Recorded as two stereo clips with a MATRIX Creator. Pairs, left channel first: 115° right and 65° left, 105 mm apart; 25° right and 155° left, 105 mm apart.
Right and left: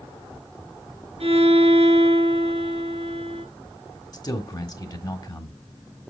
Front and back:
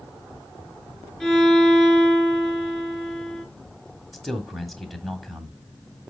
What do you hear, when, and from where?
1.2 s a violin: 60° left, 3.5 m
4.1 s a man speaking: 110° right, 1.6 m